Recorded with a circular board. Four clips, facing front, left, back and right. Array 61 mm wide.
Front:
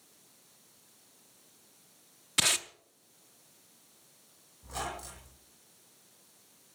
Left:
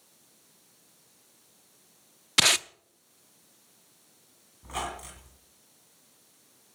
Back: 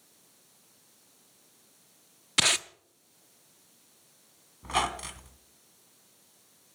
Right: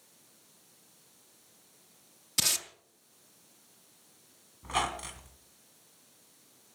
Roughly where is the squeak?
Behind.